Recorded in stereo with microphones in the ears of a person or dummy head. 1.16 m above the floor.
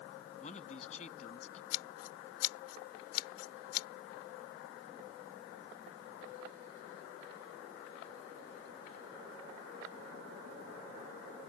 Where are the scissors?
80° left.